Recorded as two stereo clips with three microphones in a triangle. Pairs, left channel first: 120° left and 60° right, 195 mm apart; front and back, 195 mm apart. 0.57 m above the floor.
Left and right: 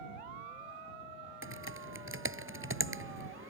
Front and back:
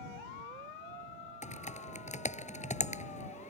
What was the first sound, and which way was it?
Typing on a keyboard, 55° right.